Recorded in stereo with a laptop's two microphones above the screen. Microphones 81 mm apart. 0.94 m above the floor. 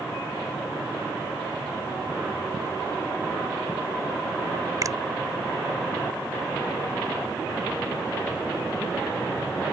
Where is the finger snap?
45° right (ahead or behind).